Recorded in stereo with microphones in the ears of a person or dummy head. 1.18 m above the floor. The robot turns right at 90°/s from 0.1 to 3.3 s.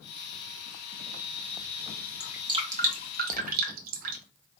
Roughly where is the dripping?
Centre.